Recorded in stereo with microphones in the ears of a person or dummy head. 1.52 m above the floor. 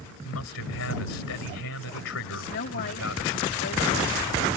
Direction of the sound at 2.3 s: 60° left (ahead or behind).